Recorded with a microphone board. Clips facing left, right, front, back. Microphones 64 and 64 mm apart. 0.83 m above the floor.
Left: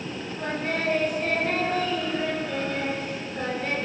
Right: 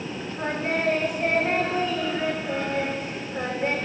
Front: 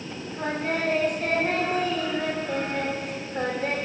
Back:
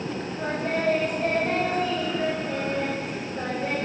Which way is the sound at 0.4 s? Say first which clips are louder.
Right 2 dB, front 1 dB; 25° right.